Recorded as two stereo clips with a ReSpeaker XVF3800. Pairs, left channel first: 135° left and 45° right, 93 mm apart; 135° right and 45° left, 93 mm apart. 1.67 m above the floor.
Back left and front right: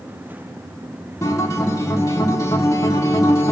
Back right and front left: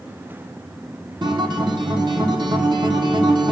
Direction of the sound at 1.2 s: 80° left.